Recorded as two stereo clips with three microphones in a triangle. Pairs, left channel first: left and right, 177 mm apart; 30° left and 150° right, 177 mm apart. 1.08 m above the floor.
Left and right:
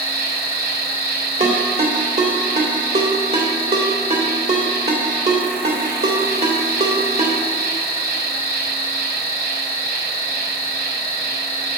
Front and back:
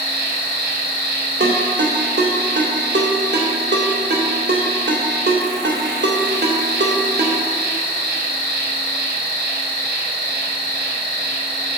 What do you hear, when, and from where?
0.0 s an insect: 125° right, 2 m
1.4 s a ringtone: 125° right, 2 m